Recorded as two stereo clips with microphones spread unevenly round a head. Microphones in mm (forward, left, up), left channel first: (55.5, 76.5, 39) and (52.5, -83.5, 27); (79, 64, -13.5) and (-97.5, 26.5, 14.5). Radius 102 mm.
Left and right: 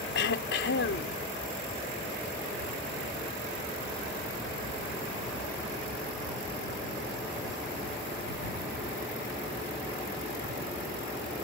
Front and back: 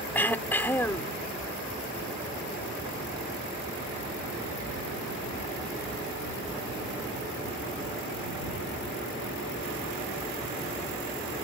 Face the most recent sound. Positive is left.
turn(degrees=95)